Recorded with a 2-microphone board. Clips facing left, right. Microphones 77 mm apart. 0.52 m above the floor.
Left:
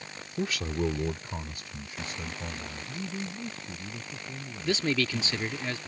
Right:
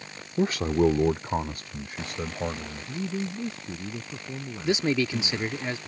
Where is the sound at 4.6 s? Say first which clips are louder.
Right 3 dB; 20° right (ahead or behind).